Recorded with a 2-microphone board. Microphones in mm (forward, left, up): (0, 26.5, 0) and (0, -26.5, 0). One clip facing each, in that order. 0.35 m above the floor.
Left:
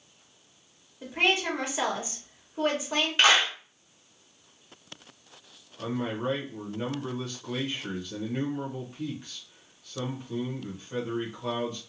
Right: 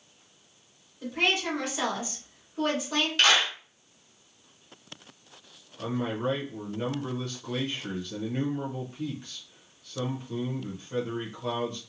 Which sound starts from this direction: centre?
A man speaking, at 5.8 s.